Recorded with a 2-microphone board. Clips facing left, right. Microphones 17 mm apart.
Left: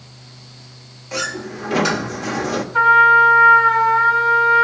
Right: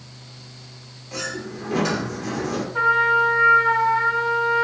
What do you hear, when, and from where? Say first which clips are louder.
1.1 s a sliding door: left 5 dB; 35° left (ahead or behind), 1.0 m
2.7 s a trumpet: left 7 dB; 35° left (ahead or behind), 4 m